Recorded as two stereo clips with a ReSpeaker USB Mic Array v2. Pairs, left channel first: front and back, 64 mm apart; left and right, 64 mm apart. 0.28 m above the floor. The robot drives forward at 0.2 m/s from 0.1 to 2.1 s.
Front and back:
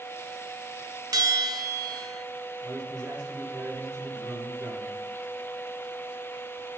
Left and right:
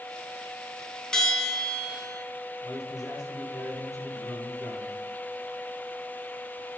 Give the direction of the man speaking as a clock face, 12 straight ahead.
5 o'clock.